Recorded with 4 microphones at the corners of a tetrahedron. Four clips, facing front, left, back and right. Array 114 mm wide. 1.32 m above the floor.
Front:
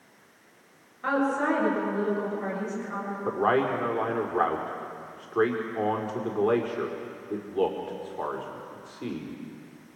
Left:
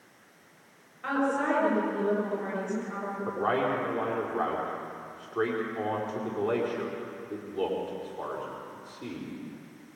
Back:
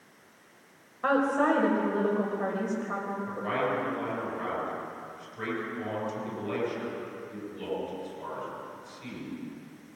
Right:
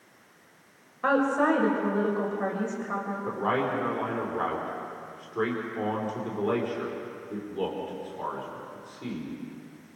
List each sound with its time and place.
1.0 s a woman speaking: 125° right, 6 m
3.2 s a man speaking: 10° left, 4.5 m